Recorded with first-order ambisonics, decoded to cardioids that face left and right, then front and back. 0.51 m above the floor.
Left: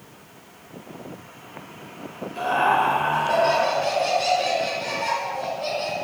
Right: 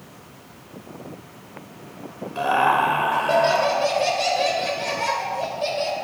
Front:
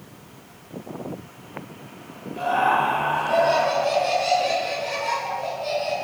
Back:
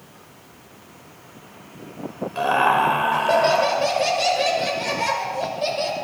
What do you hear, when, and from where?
2.4 s laughter: 150° right, 1.8 m